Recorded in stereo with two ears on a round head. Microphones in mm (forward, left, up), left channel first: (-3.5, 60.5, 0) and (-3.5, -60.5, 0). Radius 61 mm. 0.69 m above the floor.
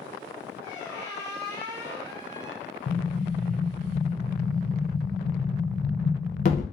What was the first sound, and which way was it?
A squeak, 25° right (ahead or behind).